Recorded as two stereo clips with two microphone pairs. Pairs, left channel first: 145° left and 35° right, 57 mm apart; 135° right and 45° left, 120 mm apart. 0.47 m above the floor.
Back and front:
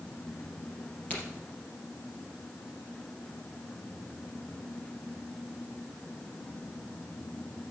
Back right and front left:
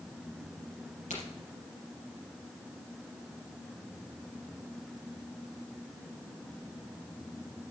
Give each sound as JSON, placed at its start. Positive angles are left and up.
{"t": 1.1, "sound": "a crack", "azimuth_deg": -150, "distance_m": 4.5}